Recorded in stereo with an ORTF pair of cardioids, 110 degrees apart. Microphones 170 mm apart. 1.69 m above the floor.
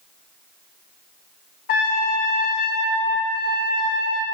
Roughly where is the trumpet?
Ahead left.